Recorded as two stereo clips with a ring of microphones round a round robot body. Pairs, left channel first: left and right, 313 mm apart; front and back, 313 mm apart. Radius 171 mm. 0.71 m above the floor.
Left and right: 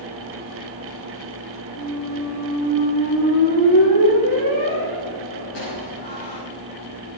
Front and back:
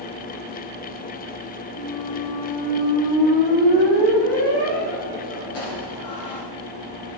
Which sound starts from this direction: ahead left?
A squeak, at 1.8 s.